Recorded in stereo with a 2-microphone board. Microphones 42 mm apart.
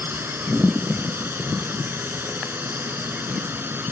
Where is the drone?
65° right (ahead or behind).